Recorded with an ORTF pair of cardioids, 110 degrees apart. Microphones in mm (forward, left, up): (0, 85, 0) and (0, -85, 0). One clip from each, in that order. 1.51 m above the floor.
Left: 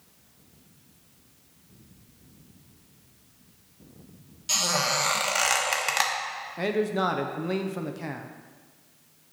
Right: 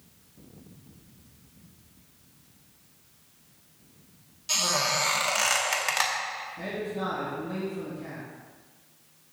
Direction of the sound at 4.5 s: 10° left.